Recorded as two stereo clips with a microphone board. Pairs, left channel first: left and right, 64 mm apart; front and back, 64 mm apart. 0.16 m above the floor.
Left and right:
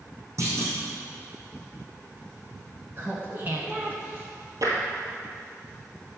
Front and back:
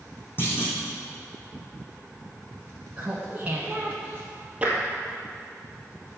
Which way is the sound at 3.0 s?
125° right.